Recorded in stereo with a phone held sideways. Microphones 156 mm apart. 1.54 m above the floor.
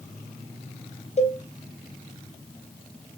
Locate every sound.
1.2 s a cowbell: 45° left (ahead or behind), 3.5 m